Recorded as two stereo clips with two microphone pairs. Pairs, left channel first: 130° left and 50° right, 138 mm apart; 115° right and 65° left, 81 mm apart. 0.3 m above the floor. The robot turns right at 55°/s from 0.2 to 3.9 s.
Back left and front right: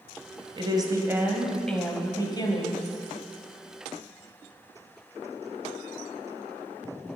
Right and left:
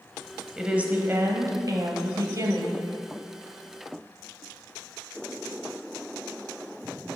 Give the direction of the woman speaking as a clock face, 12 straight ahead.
1 o'clock.